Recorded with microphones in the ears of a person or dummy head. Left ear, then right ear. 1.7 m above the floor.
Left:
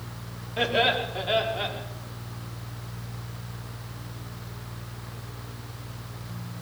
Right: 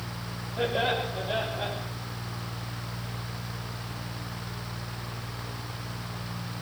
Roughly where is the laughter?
Left.